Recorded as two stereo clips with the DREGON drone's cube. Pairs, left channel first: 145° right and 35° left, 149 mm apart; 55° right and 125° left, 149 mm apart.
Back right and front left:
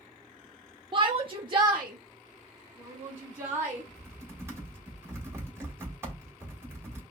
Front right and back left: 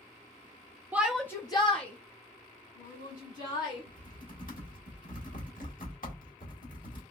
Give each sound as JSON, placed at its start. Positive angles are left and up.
{"t": 0.9, "sound": "a shout", "azimuth_deg": 55, "distance_m": 0.5}
{"t": 3.9, "sound": "typing on a keyboard", "azimuth_deg": -40, "distance_m": 1.5}